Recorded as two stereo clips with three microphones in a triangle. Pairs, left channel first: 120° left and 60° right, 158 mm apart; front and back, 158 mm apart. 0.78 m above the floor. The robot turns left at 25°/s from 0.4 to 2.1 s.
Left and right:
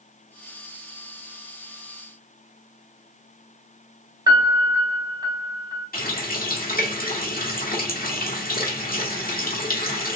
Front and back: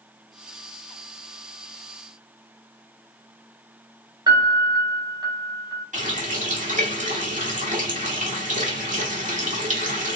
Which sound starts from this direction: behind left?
A running tap, at 5.9 s.